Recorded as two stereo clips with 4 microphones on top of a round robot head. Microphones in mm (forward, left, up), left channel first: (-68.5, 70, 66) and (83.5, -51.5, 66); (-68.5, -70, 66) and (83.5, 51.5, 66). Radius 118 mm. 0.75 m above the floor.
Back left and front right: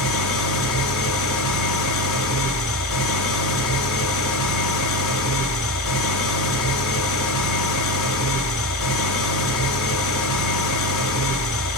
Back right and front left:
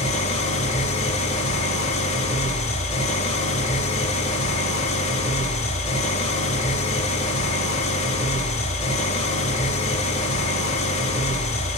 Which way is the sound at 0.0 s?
160° left.